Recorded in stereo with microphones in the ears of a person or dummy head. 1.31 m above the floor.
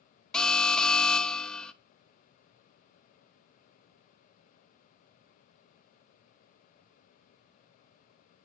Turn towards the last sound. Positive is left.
turn(degrees=0)  # may be behind; listen again after turning